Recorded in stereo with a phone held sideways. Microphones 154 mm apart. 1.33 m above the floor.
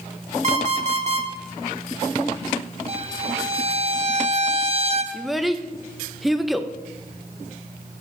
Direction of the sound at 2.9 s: 40° right (ahead or behind).